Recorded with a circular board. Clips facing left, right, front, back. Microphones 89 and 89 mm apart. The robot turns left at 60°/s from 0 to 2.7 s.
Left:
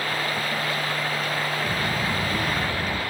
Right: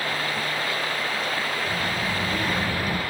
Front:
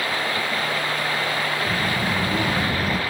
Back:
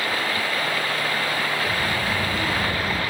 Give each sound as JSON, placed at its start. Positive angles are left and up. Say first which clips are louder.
{"t": 1.7, "sound": "a child speaking", "louder": "left 1 dB, front 1 dB", "azimuth_deg": 50, "distance_m": 4.5}